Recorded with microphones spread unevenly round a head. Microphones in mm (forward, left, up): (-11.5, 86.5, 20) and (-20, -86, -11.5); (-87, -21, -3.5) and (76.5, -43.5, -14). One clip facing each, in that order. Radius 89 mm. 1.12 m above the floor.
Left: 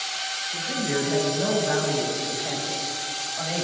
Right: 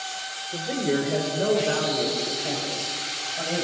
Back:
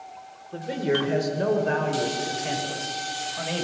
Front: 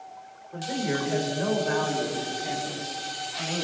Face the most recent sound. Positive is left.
turn(degrees=-160)